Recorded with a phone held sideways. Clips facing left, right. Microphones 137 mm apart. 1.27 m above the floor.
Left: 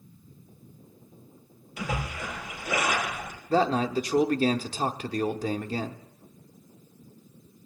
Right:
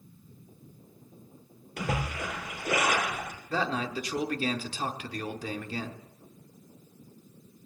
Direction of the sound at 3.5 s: 40° left (ahead or behind).